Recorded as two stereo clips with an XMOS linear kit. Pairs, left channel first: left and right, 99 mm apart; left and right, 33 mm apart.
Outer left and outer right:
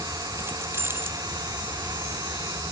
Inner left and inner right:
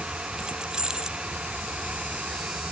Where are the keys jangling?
25° right (ahead or behind).